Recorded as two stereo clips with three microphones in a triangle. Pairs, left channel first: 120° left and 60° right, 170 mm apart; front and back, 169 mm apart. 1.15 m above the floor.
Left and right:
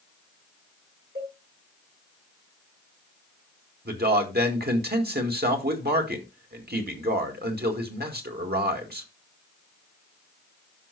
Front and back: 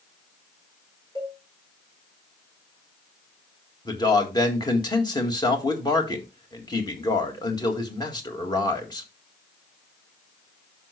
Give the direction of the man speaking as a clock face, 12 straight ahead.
2 o'clock.